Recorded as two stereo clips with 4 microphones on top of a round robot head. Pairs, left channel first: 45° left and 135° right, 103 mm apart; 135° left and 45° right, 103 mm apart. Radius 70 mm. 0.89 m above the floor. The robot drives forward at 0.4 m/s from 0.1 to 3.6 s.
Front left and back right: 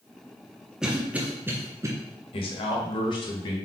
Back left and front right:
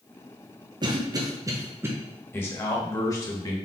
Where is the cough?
55° right, 0.9 m; by 1.9 s 95° right, 0.8 m.